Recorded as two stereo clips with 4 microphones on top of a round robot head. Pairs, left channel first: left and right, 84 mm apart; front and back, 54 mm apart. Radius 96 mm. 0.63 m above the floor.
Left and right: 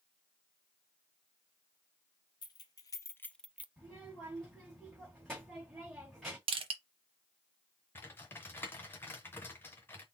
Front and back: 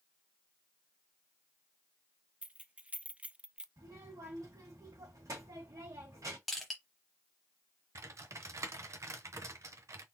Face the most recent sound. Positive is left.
turn(degrees=160)